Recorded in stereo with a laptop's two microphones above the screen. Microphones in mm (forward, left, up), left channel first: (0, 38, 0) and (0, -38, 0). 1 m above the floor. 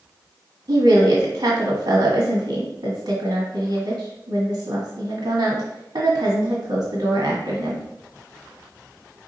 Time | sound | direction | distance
0.7 | a woman speaking | 75° right (ahead or behind) | 1.7 m